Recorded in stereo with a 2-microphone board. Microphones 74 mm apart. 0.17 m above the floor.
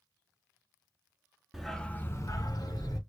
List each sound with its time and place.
1.5 s a dog barking: 5° right (ahead or behind), 0.7 m; by 3.0 s 65° left (ahead or behind), 1.0 m